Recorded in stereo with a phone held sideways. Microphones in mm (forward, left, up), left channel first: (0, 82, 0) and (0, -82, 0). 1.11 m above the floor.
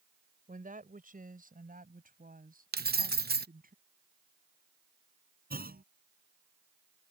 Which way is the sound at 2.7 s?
80° right.